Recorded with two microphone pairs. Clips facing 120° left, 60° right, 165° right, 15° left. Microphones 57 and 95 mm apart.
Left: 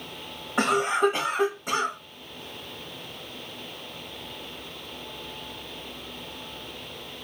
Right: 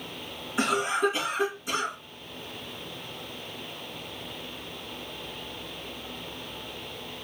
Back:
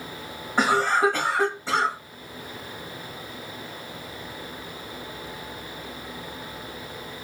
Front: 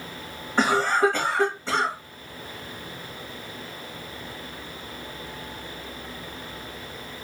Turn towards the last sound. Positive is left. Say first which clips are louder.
# left 3 dB, even
turn(degrees=115)